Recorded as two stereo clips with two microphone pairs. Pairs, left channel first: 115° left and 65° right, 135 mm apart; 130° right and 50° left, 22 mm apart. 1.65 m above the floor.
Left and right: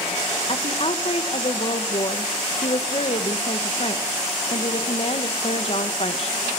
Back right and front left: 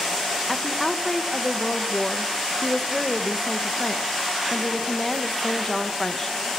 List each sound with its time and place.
0.5 s a woman speaking: 155° left, 1.7 m